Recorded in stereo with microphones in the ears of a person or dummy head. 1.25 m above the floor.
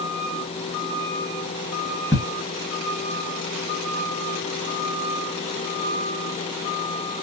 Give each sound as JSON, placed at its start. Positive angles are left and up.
{"t": 2.1, "sound": "ticking", "side_deg": 10, "distance_m": 1.1}